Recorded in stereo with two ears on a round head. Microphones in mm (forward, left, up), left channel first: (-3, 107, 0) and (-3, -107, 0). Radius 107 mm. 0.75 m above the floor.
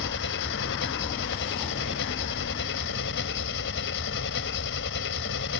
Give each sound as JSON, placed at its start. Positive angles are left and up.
{"t": 0.0, "sound": "an engine running", "side_deg": 55}